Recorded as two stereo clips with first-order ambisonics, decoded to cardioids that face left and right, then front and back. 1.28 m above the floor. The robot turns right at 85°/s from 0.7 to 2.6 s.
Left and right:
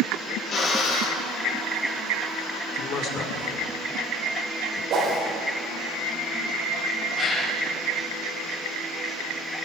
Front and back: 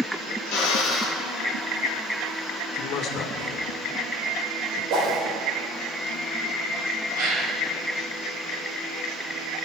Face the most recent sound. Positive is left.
turn(degrees=160)